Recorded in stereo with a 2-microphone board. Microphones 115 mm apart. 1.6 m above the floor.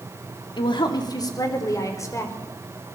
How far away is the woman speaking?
About 3 m.